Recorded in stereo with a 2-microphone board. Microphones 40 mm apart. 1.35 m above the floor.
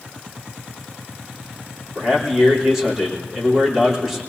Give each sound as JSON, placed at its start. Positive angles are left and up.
{"t": 1.9, "sound": "a man speaking", "side_deg": -15, "distance_m": 4.0}